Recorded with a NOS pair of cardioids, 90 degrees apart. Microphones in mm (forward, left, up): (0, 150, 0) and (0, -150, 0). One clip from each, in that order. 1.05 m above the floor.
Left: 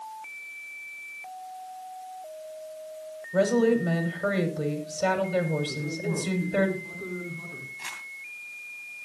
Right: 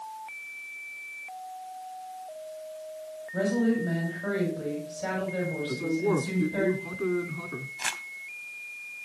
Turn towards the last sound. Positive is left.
turn(degrees=-55)